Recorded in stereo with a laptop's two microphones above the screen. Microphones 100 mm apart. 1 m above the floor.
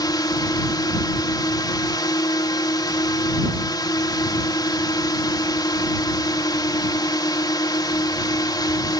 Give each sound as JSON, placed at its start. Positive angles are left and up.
{"t": 0.0, "sound": "a drone", "side_deg": 40}